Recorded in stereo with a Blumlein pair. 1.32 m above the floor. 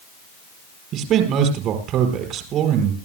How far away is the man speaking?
About 4.5 m.